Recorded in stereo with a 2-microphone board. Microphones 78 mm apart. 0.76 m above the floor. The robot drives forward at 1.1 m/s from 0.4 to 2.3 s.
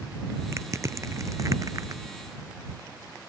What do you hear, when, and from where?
0.5 s crushing: 40° right (ahead or behind); by 2.0 s 45° right (ahead or behind)